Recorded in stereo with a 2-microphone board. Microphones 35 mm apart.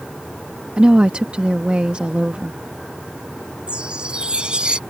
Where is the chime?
30° right (ahead or behind).